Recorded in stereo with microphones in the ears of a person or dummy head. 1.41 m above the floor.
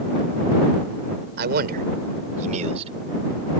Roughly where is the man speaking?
Right.